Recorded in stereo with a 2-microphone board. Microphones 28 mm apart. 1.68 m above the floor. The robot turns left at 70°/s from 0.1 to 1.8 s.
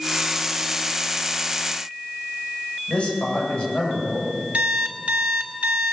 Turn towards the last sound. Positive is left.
turn(degrees=-55)  # may be behind; listen again after turning